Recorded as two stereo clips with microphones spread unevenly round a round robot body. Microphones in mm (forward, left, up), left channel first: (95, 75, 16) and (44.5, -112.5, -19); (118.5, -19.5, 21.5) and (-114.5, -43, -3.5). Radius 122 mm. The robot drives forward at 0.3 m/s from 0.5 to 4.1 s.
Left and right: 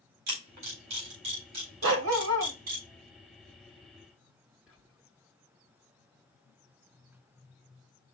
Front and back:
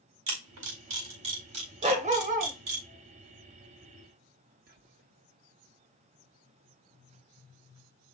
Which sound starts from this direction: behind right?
A camera shutter, at 0.3 s.